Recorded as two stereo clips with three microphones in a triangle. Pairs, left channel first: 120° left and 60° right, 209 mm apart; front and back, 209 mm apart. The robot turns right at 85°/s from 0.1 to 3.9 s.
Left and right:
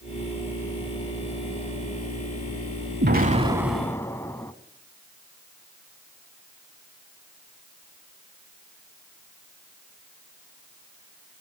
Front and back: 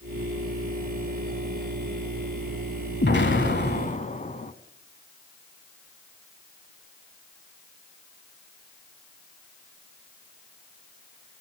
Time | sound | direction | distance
3.0 | an explosion | 30° right | 0.9 m